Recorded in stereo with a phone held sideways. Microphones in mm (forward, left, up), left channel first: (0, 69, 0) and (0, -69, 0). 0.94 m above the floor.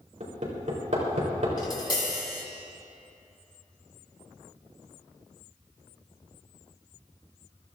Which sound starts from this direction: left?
Tapping, at 1.6 s.